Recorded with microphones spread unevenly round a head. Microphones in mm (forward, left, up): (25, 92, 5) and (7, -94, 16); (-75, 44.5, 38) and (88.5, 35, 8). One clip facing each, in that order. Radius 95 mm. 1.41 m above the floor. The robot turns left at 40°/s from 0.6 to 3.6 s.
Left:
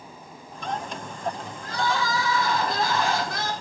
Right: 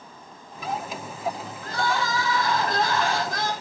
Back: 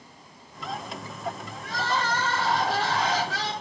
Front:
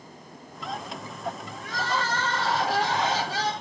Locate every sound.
1.6 s crying: 120° left, 2.5 m; by 3.5 s 45° left, 2.5 m